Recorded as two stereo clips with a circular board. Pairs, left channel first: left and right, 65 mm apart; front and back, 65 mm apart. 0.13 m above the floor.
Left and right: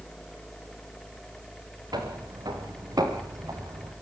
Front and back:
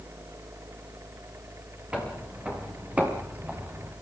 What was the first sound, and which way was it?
Footsteps, 105° right.